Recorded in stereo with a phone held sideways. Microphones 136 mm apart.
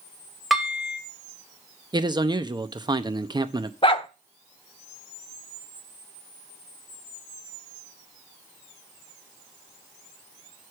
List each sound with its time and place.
0.5 s dishes clattering: centre (ahead or behind), 2.5 m
1.9 s a man speaking: 35° right (ahead or behind), 0.8 m
3.8 s a dog barking: 40° left (ahead or behind), 0.9 m